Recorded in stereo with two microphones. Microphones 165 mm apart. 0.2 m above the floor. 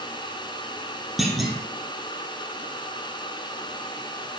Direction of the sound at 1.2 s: Centre (ahead or behind).